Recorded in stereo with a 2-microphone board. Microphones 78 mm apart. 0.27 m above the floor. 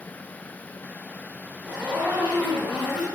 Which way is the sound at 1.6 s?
10° right (ahead or behind).